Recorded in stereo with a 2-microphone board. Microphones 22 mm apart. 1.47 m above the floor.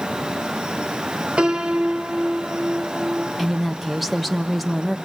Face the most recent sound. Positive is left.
turn(degrees=-5)  # may be behind; listen again after turning